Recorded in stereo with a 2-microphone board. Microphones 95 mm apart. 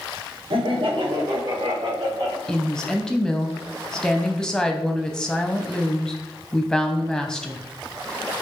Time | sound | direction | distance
0.5 | laughter | 70° right (ahead or behind) | 1.0 m
2.5 | a woman speaking | 5° left (ahead or behind) | 0.7 m